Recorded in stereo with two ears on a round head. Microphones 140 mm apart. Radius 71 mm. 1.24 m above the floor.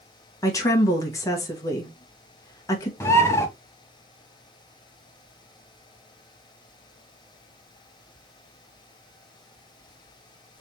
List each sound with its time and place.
0.4 s a woman speaking: 20° left (ahead or behind), 1.2 m
3.0 s a bird: 15° left (ahead or behind), 0.7 m